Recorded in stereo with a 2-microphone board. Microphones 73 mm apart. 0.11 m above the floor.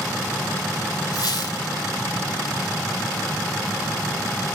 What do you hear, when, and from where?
1.1 s a squeak: 60° left (ahead or behind), 1.5 m